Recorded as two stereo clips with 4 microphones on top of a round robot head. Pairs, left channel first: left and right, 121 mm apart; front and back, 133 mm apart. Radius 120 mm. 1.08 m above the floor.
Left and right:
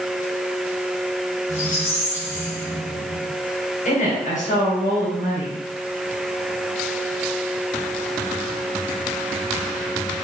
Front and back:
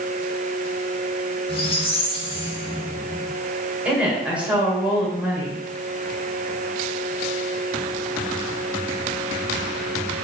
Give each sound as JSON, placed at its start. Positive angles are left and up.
{"t": 1.5, "sound": "a squeak", "azimuth_deg": 45, "distance_m": 2.5}
{"t": 3.9, "sound": "a woman speaking", "azimuth_deg": 95, "distance_m": 4.0}